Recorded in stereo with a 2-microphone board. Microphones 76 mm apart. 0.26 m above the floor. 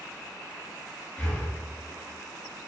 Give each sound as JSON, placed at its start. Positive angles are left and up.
{"t": 1.2, "sound": "breathing", "side_deg": 15, "distance_m": 1.2}